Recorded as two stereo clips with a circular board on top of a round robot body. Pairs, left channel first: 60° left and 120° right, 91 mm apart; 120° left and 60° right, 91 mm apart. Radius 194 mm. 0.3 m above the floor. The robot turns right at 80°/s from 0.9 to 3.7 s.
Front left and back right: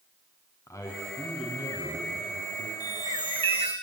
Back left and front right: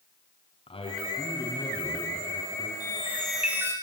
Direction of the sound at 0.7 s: 115° left.